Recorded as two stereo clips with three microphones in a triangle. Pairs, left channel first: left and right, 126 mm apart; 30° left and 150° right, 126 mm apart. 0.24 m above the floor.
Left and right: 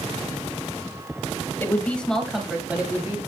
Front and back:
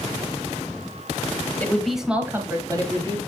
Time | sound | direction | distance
1.6 | a woman speaking | 80° left | 1.0 m